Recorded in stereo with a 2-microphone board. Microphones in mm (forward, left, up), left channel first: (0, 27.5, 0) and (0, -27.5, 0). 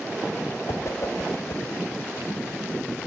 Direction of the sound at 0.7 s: 55° left (ahead or behind).